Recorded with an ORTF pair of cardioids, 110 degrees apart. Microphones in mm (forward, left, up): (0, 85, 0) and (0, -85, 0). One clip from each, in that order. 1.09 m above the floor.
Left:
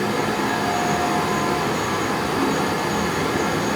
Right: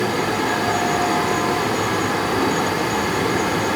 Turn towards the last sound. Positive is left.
turn(degrees=-15)